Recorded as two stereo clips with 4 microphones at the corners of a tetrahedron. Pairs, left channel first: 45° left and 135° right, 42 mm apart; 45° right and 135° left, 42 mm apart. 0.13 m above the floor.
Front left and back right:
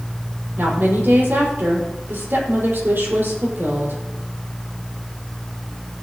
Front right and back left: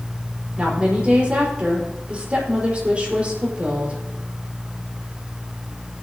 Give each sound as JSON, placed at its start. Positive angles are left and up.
{"t": 0.6, "sound": "a woman speaking", "azimuth_deg": -165, "distance_m": 4.5}